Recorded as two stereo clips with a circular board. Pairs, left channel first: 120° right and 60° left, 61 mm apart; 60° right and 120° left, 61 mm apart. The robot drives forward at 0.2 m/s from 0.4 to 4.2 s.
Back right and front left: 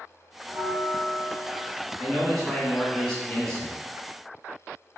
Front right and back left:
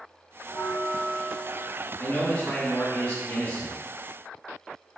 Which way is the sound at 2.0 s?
40° right.